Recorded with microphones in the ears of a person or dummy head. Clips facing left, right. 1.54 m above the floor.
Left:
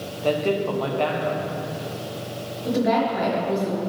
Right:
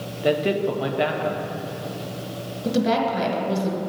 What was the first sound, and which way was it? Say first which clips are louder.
A man speaking: right 1 dB; 15° right (ahead or behind).